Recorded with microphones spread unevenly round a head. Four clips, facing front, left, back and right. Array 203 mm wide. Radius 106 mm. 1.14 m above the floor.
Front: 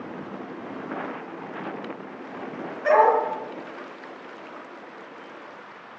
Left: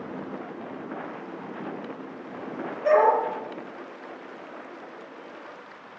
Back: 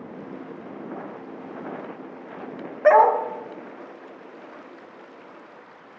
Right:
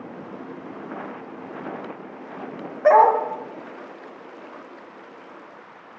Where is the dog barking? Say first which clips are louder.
Right 5 dB, back 3 dB; 105° right, 1.7 m.